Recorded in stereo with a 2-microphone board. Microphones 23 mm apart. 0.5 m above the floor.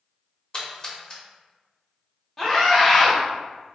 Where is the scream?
15° left (ahead or behind), 0.9 m.